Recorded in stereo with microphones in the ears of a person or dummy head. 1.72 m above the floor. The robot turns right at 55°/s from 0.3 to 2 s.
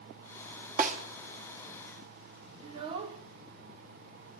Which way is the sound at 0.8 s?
45° right (ahead or behind).